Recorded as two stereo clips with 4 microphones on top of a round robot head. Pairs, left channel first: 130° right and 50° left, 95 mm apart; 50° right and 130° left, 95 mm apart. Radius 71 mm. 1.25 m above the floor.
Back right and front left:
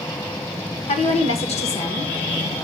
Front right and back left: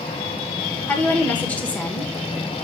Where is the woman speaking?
125° right, 2 m.